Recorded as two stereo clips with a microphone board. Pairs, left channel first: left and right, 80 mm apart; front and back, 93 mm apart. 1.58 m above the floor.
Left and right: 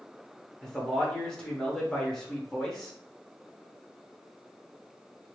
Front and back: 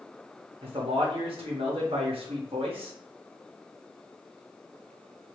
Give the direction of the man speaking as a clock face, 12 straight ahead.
6 o'clock.